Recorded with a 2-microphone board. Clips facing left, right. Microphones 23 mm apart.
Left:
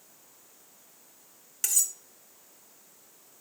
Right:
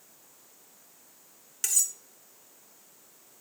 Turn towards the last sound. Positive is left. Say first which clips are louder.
# even
turn(degrees=-10)  # may be behind; listen again after turning